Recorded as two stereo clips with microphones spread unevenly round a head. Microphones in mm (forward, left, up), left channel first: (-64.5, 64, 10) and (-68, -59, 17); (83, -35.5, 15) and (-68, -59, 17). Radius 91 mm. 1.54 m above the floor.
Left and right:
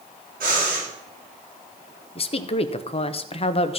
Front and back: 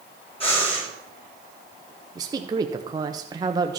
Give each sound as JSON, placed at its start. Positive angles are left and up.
{"t": 0.4, "sound": "breathing", "azimuth_deg": -45, "distance_m": 6.0}
{"t": 2.1, "sound": "a woman speaking", "azimuth_deg": 120, "distance_m": 0.8}